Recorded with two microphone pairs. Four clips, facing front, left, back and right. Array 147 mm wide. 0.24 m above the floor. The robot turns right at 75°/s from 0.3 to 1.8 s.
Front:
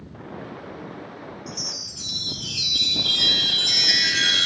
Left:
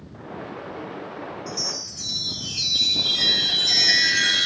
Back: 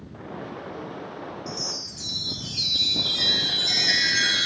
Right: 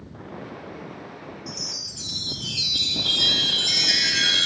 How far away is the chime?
About 1.6 m.